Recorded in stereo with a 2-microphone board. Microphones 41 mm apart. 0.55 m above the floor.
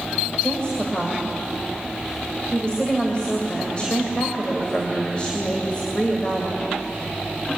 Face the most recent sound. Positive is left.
turn(degrees=25)  # may be behind; listen again after turning